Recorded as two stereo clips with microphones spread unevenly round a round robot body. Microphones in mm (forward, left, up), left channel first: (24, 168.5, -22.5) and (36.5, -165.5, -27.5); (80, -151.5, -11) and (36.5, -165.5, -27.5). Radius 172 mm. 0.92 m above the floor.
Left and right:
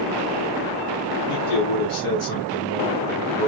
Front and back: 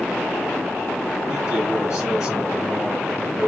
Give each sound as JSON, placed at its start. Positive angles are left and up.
{"t": 1.3, "sound": "a man speaking", "azimuth_deg": 70, "distance_m": 6.5}